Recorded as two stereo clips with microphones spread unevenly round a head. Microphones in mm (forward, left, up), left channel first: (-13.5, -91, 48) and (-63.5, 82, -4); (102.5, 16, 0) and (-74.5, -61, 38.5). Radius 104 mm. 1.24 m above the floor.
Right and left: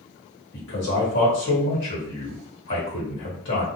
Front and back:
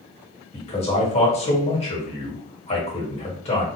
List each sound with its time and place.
0.5 s a man speaking: 35° right, 1.3 m